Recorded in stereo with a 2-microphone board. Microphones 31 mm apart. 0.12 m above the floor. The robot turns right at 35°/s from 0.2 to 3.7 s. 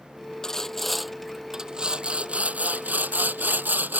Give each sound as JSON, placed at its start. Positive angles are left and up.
{"t": 0.4, "sound": "sawing", "azimuth_deg": 160}